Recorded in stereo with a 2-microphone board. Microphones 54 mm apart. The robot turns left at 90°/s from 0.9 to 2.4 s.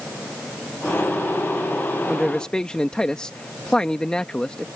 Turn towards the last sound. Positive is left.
turn(degrees=15)  # may be behind; listen again after turning